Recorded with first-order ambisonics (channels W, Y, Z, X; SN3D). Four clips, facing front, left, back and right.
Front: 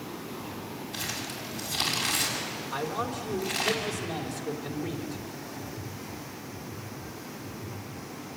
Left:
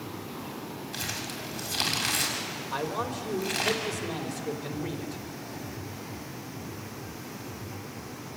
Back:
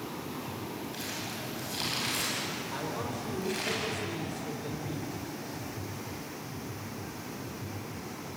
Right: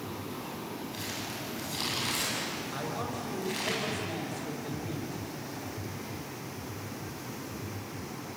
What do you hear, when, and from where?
0.9 s crumpling: 75° left, 6 m
2.7 s a man speaking: 70° left, 4 m